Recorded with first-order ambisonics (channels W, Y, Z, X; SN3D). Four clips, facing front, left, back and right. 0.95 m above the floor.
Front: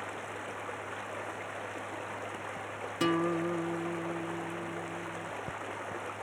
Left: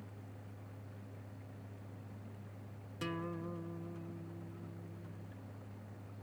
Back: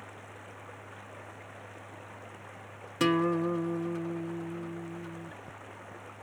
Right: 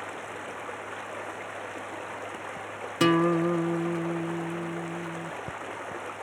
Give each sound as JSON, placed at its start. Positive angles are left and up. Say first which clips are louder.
{"t": 0.0, "sound": "running water", "louder": "right 18 dB, front 8 dB", "azimuth_deg": -60}
{"t": 3.0, "sound": "a guitar", "louder": "right 20 dB, back 3 dB", "azimuth_deg": -100}